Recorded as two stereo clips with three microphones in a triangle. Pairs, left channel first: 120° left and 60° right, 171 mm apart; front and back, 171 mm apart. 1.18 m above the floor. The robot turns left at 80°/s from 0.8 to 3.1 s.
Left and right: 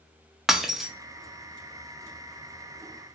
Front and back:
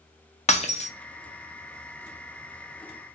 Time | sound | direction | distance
0.5 | breaking glass | 30° left | 0.5 m